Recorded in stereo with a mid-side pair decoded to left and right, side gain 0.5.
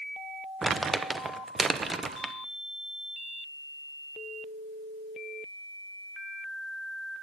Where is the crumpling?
35° right, 0.9 m.